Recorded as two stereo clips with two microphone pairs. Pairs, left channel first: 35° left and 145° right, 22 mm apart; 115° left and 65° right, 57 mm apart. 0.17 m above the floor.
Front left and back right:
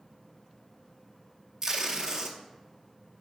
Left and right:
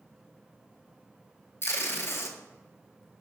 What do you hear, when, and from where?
1.6 s tape being pulled: 150° left, 0.6 m